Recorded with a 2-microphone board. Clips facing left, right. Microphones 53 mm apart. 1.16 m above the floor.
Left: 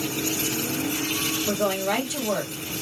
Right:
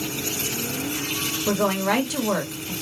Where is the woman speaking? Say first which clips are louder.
Right 4 dB; 60° right (ahead or behind), 1.1 m.